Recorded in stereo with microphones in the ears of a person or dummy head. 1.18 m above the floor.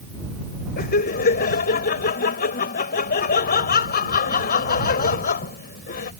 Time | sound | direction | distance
0.8 | laughter | 50° left (ahead or behind) | ?